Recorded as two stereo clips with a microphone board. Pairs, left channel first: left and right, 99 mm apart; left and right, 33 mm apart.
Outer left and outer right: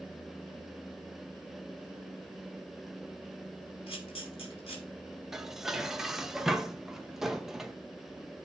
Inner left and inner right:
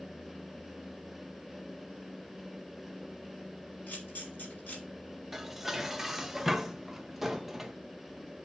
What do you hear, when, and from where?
3.9 s a camera shutter: 70° left (ahead or behind), 3.5 m
5.3 s dishes clattering: 5° right (ahead or behind), 0.7 m